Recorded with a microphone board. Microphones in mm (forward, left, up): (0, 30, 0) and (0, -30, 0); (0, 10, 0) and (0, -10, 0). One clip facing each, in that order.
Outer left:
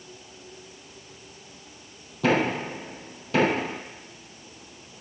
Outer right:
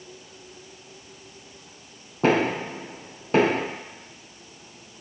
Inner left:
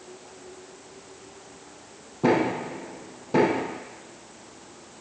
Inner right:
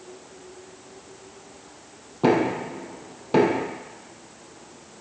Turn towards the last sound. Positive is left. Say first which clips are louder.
# outer right 2 dB, inner right 2 dB
turn(degrees=-35)  # may be behind; listen again after turning